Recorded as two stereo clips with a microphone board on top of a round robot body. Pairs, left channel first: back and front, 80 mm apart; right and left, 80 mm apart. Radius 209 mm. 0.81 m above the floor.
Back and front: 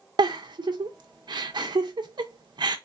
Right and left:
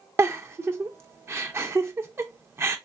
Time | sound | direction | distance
0.2 | a giggle | 30° left | 0.6 m